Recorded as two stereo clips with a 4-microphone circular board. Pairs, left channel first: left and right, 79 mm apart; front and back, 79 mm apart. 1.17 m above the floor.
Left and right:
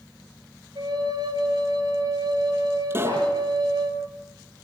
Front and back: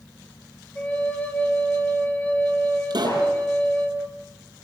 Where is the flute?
70° right, 4 m.